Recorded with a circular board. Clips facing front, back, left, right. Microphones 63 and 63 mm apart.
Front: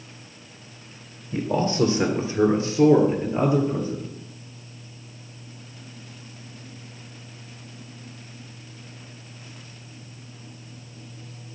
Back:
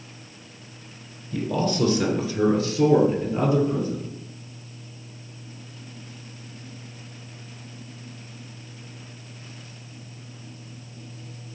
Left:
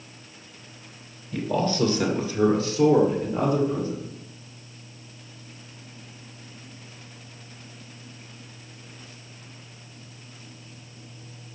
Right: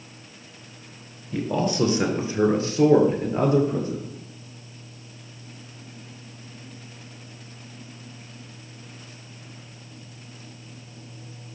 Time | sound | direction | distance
1.3 | a man speaking | 15° right | 1.6 m